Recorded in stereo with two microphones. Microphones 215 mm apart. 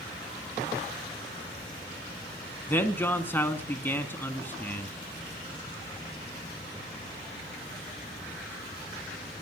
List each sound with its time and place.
2.7 s a man speaking: 10° left (ahead or behind), 1.6 m